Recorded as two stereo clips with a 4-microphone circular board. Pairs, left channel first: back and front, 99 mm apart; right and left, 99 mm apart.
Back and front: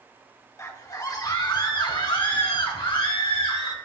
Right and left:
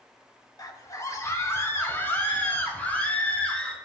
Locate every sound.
0.6 s a scream: 130° right, 1.3 m; by 3.7 s 165° right, 2.5 m